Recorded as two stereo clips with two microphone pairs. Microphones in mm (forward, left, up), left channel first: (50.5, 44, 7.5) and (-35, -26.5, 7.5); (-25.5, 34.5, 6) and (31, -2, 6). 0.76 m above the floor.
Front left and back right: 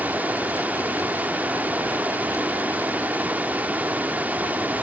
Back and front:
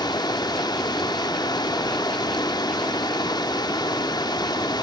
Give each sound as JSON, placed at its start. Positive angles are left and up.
{"t": 0.0, "sound": "running water", "azimuth_deg": 140, "distance_m": 0.7}